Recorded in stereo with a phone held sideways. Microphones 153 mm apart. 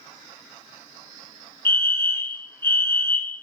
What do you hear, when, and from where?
1.6 s a fire alarm: 15° left (ahead or behind), 3.5 m